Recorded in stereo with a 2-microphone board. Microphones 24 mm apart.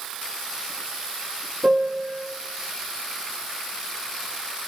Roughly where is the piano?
Right.